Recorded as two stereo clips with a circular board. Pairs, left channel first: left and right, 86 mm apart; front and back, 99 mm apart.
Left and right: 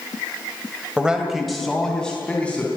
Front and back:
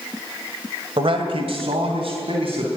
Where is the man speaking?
165° right, 2.5 m; by 2.7 s 165° left, 4 m.